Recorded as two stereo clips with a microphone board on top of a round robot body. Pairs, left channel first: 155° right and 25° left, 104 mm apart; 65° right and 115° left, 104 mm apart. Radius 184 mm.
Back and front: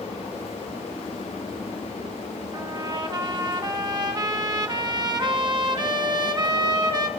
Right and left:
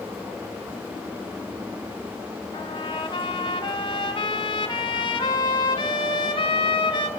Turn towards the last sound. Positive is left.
turn(degrees=-25)